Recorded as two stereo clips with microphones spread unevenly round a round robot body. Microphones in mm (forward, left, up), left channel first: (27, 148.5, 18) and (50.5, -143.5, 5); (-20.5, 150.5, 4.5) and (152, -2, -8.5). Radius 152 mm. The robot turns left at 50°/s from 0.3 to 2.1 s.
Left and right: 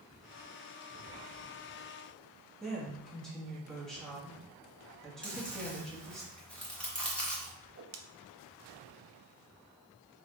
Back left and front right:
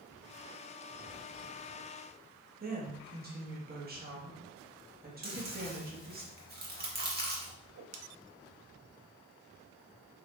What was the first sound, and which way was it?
A woman speaking, 5° left.